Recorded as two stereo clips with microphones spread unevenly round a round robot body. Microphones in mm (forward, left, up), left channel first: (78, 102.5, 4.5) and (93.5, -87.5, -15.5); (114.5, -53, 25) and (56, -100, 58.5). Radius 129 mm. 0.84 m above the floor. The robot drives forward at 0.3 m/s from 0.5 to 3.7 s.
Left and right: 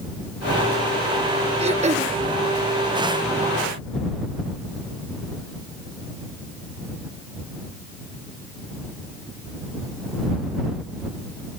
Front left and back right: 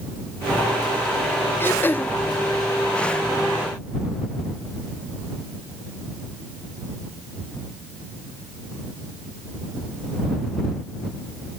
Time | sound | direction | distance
1.6 | throat clearing | 25° right | ?